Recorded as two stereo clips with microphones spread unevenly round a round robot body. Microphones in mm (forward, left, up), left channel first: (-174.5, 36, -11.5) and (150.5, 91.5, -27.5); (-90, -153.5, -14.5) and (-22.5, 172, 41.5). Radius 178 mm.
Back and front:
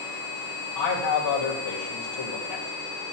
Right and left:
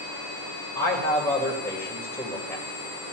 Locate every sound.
0.8 s a man speaking: straight behind, 2.5 m